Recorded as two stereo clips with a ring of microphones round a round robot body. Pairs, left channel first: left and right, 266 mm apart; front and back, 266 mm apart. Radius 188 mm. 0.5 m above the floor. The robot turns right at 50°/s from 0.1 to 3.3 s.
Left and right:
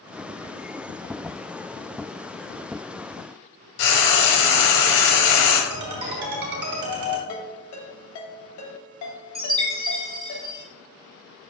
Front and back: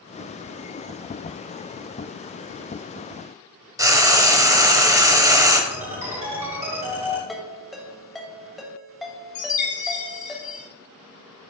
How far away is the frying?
About 1.4 m.